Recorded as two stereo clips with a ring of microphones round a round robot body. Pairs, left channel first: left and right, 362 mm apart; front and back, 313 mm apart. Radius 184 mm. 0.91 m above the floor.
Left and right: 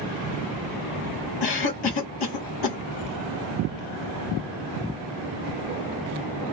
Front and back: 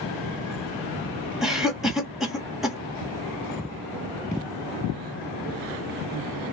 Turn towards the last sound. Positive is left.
turn(degrees=90)